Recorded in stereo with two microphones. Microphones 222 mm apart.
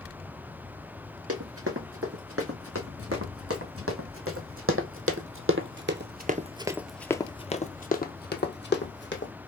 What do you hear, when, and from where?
1.3 s running footsteps: 80° right, 3 m; by 9.3 s 55° left (ahead or behind), 1.5 m